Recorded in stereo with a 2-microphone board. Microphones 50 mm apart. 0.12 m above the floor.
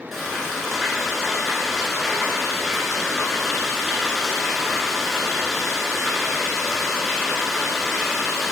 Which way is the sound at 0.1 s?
Centre (ahead or behind).